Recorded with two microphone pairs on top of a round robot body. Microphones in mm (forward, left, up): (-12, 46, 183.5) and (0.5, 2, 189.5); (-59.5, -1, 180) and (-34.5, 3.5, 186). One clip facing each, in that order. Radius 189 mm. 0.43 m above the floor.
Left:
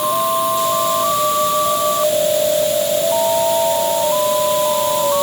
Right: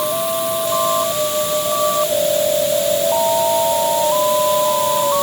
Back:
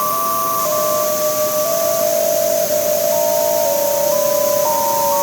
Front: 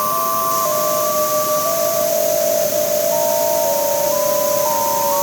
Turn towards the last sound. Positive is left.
No sound to turn to.